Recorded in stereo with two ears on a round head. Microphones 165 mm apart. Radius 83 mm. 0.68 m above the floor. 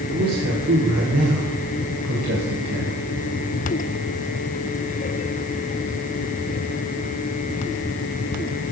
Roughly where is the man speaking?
Right.